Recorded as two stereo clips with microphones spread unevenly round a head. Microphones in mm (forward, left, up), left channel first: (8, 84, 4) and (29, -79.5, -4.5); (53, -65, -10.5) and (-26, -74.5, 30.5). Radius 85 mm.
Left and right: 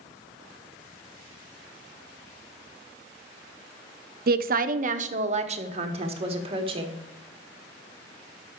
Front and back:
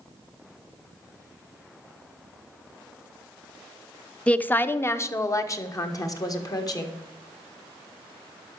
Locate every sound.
4.3 s a woman speaking: 55° right, 0.7 m; by 6.9 s 25° right, 2 m